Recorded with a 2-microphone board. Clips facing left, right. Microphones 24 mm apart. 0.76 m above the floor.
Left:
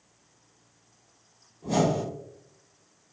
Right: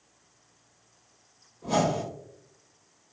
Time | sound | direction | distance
1.6 | a whoosh | 35° right (ahead or behind) | 1.1 m